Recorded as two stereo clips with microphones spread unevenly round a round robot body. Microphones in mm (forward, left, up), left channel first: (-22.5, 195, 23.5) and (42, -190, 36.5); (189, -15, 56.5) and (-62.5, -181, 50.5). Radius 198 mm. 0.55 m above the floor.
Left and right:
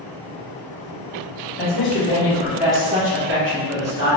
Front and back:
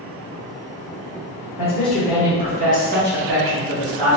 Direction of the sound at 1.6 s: 105° left.